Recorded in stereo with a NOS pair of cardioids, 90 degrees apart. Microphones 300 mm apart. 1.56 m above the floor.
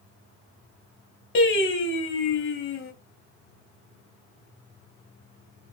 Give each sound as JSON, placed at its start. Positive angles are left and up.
{"t": 1.4, "sound": "singing", "azimuth_deg": 40, "distance_m": 1.6}